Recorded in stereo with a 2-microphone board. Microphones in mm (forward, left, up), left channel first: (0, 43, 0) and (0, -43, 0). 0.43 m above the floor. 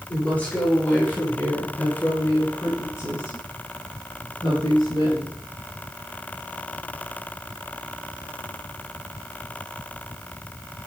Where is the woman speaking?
20° left (ahead or behind), 8.5 m; by 5.4 s 55° left (ahead or behind), 6.5 m.